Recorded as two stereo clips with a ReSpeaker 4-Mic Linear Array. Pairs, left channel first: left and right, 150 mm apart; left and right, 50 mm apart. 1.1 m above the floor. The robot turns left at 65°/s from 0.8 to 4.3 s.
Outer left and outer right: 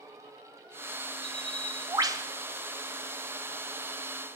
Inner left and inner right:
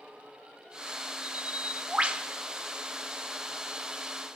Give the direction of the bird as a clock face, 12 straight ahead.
2 o'clock.